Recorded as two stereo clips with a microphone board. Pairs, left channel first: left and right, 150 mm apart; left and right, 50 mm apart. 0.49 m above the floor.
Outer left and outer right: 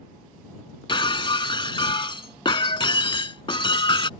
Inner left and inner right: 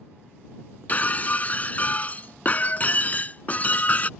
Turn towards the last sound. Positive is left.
turn(degrees=35)  # may be behind; listen again after turning